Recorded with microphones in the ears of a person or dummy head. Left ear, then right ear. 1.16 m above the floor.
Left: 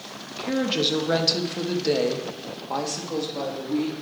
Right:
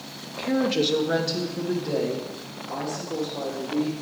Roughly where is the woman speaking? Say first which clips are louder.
Right 1 dB; centre.